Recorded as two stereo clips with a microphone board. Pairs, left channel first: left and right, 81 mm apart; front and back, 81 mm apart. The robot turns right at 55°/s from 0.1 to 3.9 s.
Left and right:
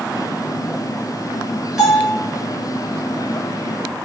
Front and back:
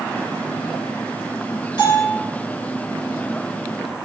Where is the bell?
5° right, 3 m; by 2.2 s 15° left, 3 m.